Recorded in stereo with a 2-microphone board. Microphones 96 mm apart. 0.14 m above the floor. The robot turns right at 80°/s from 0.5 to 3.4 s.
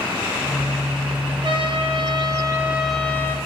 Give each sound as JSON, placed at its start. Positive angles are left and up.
{"t": 1.4, "sound": "a trumpet", "azimuth_deg": -120, "distance_m": 1.2}